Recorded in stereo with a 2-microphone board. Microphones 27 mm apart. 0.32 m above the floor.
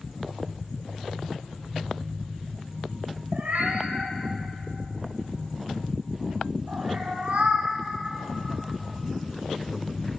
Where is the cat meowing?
65° right (ahead or behind), 4.5 m; by 7.7 s 55° right (ahead or behind), 7 m.